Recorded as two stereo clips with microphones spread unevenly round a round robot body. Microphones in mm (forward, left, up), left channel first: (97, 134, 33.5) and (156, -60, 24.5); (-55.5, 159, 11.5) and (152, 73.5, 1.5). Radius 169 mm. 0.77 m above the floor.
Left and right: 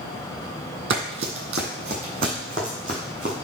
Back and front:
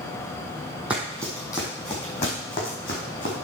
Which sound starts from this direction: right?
Running footsteps, at 0.9 s.